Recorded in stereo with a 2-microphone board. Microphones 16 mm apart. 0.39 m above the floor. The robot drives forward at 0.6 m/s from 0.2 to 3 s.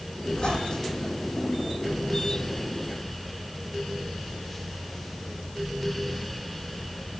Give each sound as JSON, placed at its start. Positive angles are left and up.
{"t": 0.3, "sound": "a squeak", "side_deg": 90, "distance_m": 7.0}